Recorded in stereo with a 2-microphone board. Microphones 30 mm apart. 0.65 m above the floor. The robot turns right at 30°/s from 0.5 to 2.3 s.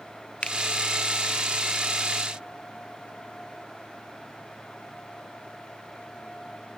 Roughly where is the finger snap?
Left.